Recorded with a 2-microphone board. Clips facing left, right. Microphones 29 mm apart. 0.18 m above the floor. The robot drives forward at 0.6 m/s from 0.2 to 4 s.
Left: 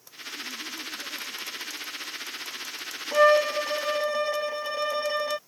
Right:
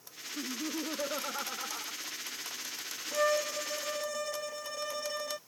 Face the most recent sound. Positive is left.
turn(degrees=40)  # may be behind; listen again after turning